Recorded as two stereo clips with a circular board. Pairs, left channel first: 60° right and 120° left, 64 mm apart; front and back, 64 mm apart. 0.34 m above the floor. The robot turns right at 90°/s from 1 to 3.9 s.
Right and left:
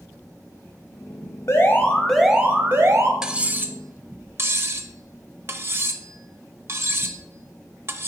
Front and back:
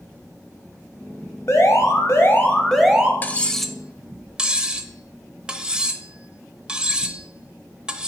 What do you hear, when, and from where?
1.5 s an alarm: 30° right, 1.1 m; by 3.1 s 115° left, 1.1 m
3.2 s cutlery clinking: 45° left, 0.6 m; by 8.1 s 110° left, 0.6 m